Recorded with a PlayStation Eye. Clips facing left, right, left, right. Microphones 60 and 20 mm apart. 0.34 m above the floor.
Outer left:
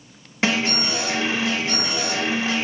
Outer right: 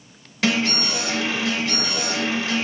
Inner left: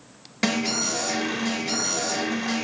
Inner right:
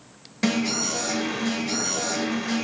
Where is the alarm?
25° left (ahead or behind), 1.0 m.